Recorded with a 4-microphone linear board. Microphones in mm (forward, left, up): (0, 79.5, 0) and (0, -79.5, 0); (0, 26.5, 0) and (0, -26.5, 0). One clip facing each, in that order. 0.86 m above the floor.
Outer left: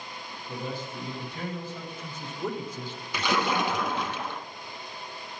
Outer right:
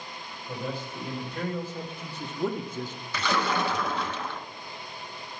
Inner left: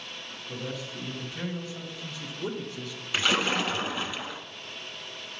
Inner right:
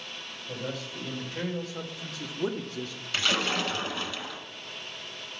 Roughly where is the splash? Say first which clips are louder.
Outer left 1 dB, inner left 2 dB; centre.